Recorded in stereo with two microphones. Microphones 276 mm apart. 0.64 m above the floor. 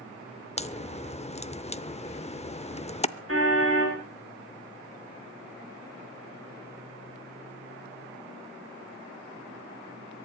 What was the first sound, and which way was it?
A crack, 25° left (ahead or behind).